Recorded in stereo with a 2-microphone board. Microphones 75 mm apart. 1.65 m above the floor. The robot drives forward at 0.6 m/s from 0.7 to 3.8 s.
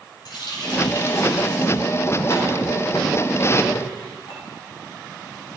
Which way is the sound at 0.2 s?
75° left (ahead or behind).